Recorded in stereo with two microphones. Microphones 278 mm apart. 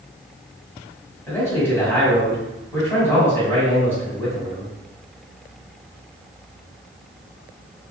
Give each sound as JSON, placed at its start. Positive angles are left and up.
{"t": 1.3, "sound": "a man speaking", "side_deg": 10, "distance_m": 1.7}